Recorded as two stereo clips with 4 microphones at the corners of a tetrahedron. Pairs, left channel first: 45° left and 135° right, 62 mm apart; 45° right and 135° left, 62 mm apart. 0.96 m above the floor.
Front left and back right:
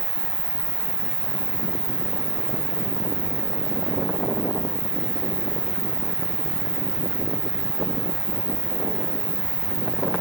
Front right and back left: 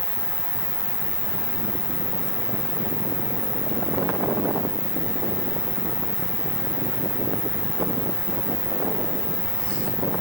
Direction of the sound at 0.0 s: 170° left.